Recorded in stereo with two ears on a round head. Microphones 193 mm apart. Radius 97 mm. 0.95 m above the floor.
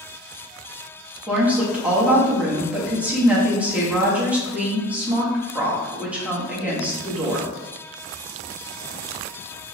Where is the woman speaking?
5° right (ahead or behind), 1.0 m.